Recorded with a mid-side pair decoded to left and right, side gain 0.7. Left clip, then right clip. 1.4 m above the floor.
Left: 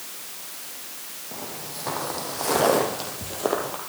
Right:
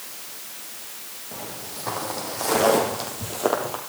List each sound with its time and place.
1.3 s footsteps: 5° left, 4.5 m; by 3.8 s 20° right, 2.5 m